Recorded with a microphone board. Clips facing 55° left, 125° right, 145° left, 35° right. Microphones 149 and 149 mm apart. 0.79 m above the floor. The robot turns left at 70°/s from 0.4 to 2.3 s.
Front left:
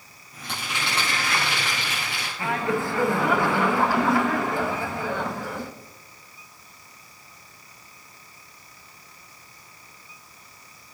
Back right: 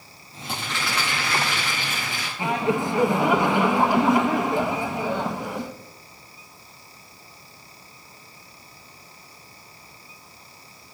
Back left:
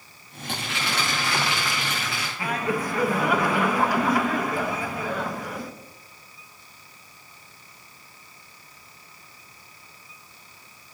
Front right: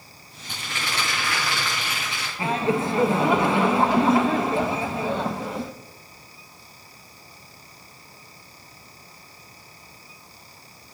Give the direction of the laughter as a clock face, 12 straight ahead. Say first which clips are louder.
Back right 2 dB, front right 4 dB; 2 o'clock.